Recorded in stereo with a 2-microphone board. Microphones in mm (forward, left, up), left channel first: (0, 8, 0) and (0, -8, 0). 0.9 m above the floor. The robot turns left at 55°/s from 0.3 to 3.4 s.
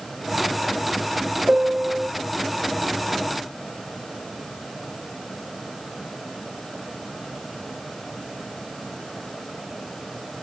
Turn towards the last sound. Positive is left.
turn(degrees=175)